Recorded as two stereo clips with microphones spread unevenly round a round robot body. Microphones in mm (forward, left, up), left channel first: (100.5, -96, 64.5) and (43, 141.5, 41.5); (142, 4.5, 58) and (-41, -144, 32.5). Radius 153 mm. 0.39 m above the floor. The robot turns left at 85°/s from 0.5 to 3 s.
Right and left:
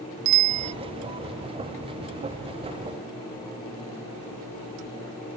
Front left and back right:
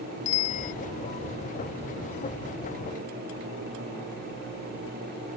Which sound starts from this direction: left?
A bicycle bell, at 0.2 s.